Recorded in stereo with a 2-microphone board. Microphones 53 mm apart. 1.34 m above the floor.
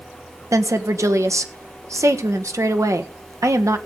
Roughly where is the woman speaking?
Right.